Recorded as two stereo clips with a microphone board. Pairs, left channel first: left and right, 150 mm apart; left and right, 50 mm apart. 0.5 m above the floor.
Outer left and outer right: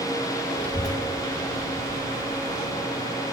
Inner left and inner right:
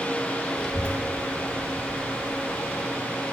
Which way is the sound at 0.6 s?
5° left (ahead or behind).